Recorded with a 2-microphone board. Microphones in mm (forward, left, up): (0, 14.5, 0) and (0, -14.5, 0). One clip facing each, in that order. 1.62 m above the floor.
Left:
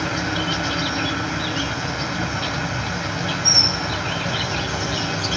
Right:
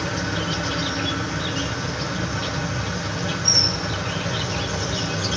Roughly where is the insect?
Left.